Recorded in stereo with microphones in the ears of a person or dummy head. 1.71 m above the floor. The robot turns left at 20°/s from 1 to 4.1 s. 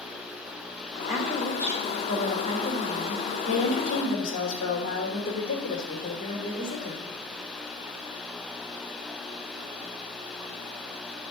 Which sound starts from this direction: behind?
A woman speaking, at 1.1 s.